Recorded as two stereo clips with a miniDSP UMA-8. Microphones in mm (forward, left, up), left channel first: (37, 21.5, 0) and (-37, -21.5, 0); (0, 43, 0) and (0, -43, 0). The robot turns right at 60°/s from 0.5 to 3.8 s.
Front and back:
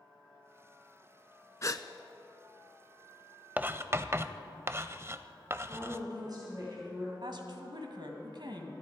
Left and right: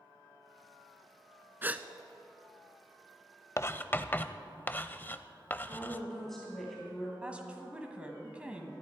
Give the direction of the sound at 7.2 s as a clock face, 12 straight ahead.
5 o'clock.